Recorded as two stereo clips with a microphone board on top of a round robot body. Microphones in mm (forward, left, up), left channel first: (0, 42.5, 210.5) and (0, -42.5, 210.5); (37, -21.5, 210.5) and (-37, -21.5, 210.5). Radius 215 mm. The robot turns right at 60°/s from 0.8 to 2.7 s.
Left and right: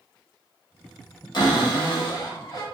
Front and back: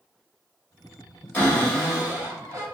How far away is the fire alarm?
No fire alarm in this recording.